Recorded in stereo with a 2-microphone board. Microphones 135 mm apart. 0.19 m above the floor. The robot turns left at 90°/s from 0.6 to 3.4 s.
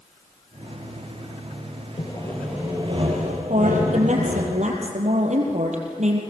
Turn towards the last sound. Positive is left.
turn(degrees=-60)  # may be behind; listen again after turning